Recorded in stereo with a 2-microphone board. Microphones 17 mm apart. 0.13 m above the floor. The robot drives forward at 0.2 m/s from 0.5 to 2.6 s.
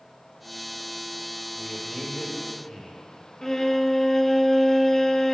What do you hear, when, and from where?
1.6 s a man speaking: 30° left (ahead or behind), 3 m
3.4 s a violin: 20° left (ahead or behind), 0.8 m